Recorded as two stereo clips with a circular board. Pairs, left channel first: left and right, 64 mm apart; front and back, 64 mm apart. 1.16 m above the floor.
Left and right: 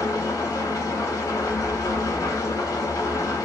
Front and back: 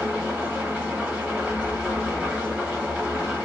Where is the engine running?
110° left, 1.1 m.